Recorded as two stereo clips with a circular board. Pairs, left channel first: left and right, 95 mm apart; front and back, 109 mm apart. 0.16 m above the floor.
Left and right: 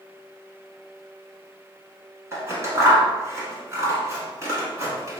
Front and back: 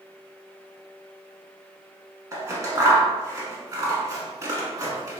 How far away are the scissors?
About 0.8 m.